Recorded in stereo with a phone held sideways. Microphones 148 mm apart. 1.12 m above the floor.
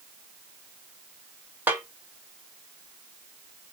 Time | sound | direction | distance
1.7 | a snare drum | 15° right (ahead or behind) | 1.1 m